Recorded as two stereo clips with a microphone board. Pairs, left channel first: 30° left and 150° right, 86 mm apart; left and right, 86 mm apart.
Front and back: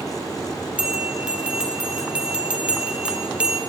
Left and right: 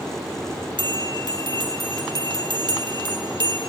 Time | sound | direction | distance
0.8 | a bell | 75° right | 2.5 m